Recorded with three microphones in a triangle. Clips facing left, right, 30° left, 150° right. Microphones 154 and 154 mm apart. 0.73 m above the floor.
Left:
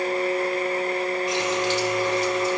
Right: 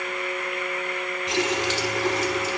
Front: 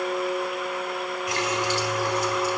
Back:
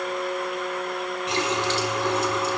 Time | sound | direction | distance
1.3 | a running tap | 85° right | 4.5 m